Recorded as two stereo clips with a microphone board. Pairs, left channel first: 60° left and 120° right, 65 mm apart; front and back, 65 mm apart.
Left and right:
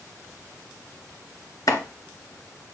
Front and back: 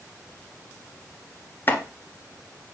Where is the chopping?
50° left, 1.6 m.